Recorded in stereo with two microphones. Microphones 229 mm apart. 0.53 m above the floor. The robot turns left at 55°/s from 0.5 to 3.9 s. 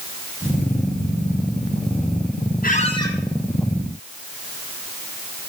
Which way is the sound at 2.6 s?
40° left (ahead or behind).